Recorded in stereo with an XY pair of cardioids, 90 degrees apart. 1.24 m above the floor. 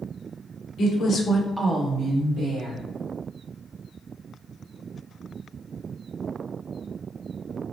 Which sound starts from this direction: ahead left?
A woman speaking, at 0.8 s.